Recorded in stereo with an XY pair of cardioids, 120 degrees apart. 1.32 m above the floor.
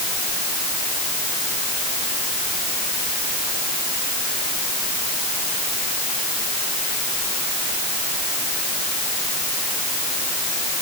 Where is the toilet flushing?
No toilet flushing in this recording.